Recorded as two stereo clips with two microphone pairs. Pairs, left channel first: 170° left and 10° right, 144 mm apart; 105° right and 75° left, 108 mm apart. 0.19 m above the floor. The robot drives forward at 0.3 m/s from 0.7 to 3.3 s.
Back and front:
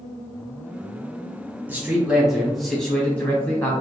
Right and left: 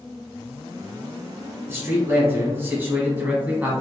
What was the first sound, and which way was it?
A man speaking, 50° left.